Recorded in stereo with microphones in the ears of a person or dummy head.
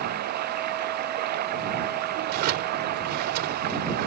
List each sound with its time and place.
0.0 s running water: 50° right (ahead or behind)
2.3 s a drawer: 55° right (ahead or behind)